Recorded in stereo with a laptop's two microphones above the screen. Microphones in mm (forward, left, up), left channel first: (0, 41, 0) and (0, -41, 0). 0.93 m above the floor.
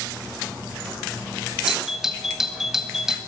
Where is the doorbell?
5° right (ahead or behind), 1.3 m.